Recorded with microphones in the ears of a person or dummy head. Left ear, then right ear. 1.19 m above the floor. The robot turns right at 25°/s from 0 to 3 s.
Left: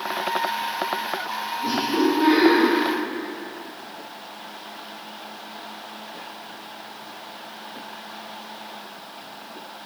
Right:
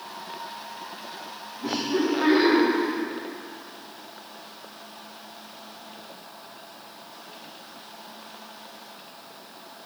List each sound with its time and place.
1.6 s laughter: 10° right (ahead or behind), 1.6 m; by 2.6 s 35° right (ahead or behind), 1.6 m